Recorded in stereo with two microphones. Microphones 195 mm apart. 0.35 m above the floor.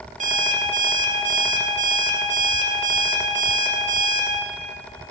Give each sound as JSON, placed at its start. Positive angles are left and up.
{"t": 0.2, "sound": "an alarm clock", "side_deg": -40, "distance_m": 0.7}